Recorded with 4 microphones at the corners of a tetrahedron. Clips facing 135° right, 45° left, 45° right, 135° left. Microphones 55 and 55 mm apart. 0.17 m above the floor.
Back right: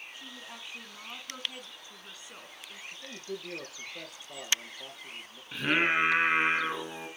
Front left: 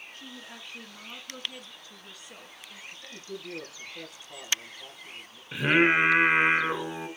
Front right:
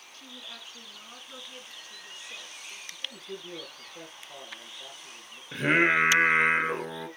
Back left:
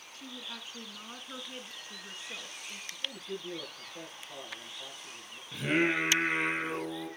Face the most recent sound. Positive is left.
turn(degrees=-25)